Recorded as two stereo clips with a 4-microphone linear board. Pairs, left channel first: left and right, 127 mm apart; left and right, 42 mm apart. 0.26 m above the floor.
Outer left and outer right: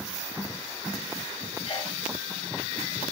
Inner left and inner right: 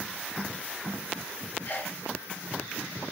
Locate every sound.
1.6 s a sneeze: 45° left (ahead or behind), 1.2 m